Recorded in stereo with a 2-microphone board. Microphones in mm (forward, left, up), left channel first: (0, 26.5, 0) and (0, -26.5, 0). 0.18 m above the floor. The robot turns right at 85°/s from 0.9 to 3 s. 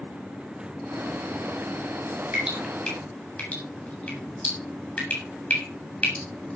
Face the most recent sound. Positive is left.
turn(degrees=20)  # may be behind; listen again after turning